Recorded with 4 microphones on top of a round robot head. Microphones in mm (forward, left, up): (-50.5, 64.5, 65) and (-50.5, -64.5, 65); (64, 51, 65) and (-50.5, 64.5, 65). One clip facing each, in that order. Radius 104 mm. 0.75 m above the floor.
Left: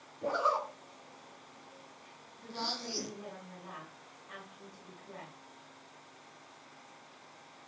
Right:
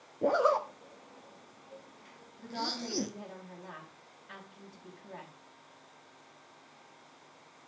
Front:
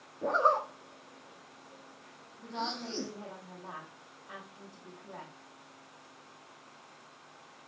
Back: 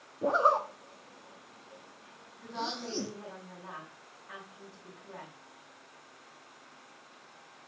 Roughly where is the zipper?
Right.